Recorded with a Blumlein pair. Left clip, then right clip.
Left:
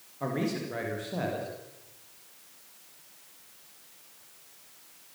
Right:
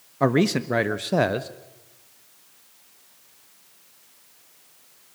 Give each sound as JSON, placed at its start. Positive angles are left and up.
{"t": 0.2, "sound": "a man speaking", "azimuth_deg": -35, "distance_m": 1.3}